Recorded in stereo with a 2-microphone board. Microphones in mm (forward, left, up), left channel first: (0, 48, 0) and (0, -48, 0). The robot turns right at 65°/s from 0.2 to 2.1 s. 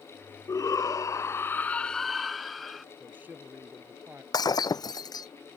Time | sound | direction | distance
0.5 | a shout | 75° left | ?
3.0 | a man speaking | 20° right (ahead or behind) | ?
4.3 | breaking glass | 45° left (ahead or behind) | ?